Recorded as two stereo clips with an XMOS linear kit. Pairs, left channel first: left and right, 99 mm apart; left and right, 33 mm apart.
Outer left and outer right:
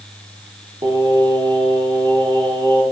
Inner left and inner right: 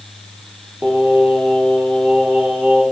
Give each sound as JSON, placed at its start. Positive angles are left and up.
{"t": 0.8, "sound": "singing", "side_deg": -60, "distance_m": 2.0}